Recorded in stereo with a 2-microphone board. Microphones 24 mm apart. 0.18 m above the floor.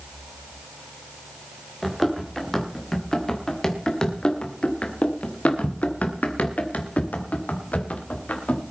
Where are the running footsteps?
10° left (ahead or behind), 3.5 m; by 8.6 s 65° left (ahead or behind), 3.5 m.